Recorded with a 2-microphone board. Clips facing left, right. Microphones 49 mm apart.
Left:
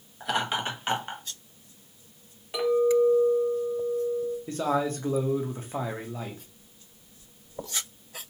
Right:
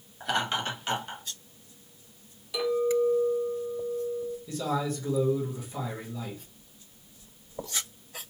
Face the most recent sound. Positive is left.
turn(degrees=45)  # may be behind; listen again after turning